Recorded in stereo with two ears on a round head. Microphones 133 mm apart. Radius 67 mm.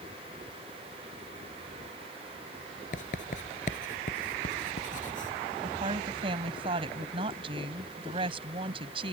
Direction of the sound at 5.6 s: 40° right (ahead or behind).